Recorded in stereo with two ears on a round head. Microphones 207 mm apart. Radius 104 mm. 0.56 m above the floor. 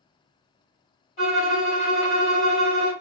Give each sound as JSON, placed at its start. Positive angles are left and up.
{"t": 1.2, "sound": "a violin", "side_deg": 55, "distance_m": 2.0}